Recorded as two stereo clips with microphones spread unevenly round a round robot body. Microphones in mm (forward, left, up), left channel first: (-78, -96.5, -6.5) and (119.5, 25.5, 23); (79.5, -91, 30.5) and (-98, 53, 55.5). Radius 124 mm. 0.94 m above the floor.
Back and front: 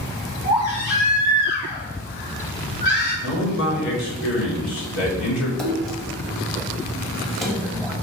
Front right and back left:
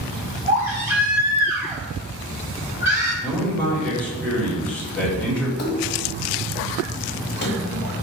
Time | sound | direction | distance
0.5 | a baby crying | 140° right | 3 m
3.2 | a man speaking | 125° right | 2.0 m
5.6 | a splash | 60° right | 1.4 m